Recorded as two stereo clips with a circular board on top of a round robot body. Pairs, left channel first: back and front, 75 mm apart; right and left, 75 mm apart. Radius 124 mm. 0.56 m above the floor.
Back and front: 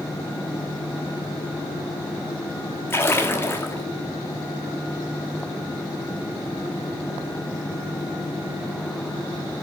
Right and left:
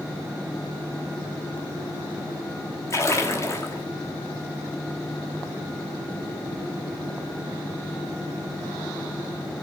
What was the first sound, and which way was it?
A splash, 130° right.